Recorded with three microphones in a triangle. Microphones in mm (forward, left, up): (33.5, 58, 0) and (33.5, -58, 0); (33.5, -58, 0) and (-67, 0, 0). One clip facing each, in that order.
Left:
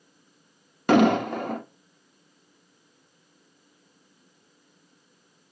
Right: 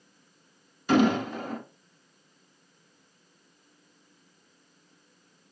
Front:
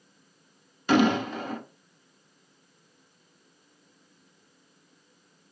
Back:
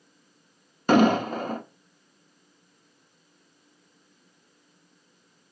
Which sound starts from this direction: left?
An explosion, at 0.9 s.